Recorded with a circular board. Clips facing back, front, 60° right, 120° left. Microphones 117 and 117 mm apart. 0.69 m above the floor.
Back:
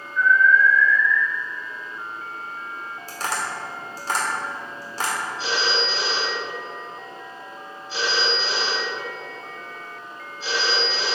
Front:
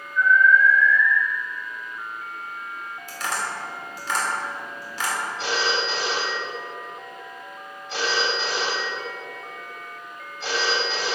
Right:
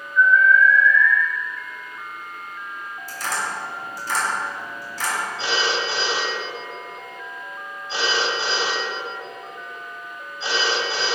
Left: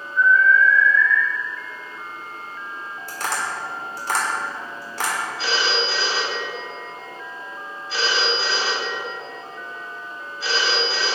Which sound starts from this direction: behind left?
Tapping, at 3.1 s.